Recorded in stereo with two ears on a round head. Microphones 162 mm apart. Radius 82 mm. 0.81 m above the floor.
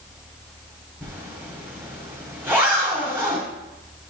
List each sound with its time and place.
1.0 s a zipper: 10° right (ahead or behind), 2.0 m